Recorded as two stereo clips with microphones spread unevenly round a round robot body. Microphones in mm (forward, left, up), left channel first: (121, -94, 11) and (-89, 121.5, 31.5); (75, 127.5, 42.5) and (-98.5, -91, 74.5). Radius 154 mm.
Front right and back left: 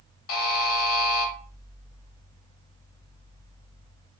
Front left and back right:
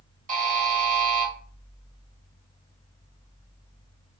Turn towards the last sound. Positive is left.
turn(degrees=-65)